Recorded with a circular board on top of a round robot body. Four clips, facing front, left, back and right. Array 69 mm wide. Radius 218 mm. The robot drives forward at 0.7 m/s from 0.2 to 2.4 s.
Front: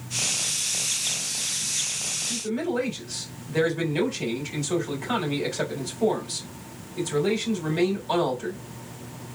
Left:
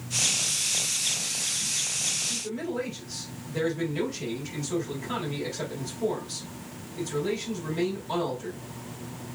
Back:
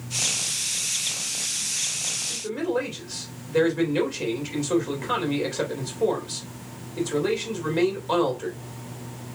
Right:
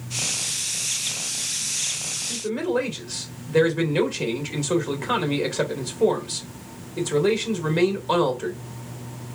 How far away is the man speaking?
About 2.5 m.